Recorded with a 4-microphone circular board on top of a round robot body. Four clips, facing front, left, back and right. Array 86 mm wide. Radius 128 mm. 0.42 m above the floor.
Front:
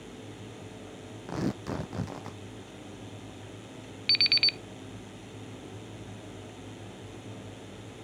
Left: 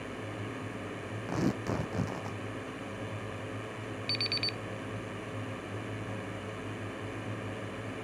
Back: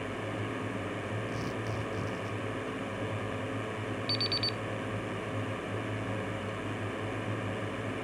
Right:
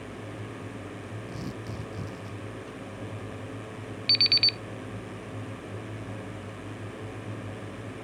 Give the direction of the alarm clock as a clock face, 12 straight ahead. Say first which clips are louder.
Right 3 dB, back 2 dB; 1 o'clock.